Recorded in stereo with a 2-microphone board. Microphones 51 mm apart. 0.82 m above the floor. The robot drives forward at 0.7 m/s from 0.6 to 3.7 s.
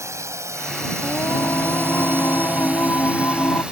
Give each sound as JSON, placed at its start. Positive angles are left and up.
{"t": 0.0, "sound": "a drone", "side_deg": -80}
{"t": 1.0, "sound": "singing", "side_deg": 80}